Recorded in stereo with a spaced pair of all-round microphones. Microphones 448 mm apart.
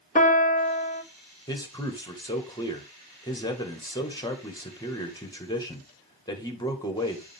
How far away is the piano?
About 0.7 m.